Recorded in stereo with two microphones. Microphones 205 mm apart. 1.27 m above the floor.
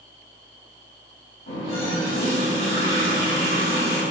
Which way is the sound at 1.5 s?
75° left (ahead or behind).